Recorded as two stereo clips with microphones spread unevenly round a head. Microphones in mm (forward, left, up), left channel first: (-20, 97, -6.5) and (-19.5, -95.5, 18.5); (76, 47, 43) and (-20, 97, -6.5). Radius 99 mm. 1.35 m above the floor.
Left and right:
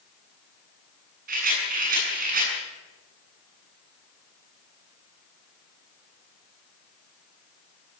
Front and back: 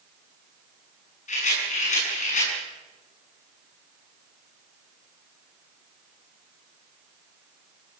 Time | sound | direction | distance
1.3 | a rattle | 40° right | 8.5 m